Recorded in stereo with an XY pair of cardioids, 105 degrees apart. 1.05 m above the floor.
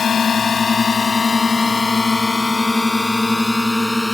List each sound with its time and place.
0.0 s a drone: 45° left; by 4.2 s 10° left